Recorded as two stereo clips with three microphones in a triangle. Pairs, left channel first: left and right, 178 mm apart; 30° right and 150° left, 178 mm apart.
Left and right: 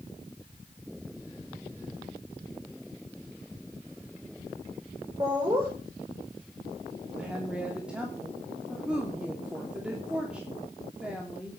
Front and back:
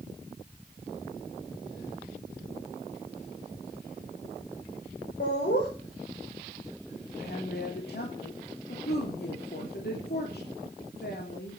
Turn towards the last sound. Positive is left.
turn(degrees=-5)